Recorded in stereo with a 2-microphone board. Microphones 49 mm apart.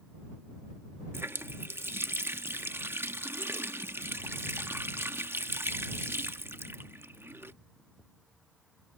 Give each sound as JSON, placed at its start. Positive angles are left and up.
{"t": 1.1, "sound": "a running tap", "side_deg": -60}